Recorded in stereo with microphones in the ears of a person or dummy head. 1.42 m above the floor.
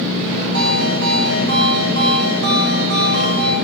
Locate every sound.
0.5 s a ringtone: 65° right (ahead or behind), 1.5 m